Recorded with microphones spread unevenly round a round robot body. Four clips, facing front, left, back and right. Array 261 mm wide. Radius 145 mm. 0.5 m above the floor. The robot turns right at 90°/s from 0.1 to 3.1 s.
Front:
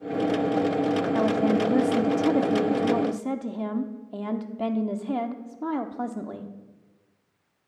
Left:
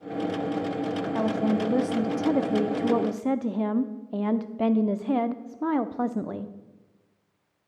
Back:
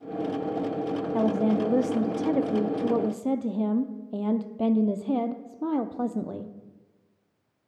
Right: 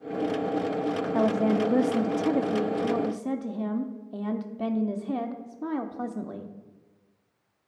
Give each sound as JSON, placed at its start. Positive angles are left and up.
{"t": 1.1, "sound": "a woman speaking", "azimuth_deg": -95, "distance_m": 0.6}